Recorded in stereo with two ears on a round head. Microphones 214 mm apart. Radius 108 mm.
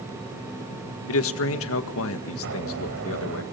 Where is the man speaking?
65° left (ahead or behind), 1.8 m.